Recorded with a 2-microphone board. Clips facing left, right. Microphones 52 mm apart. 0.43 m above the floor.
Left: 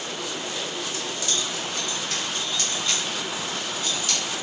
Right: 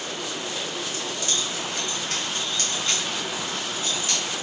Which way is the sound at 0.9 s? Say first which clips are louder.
Even; 35° right (ahead or behind).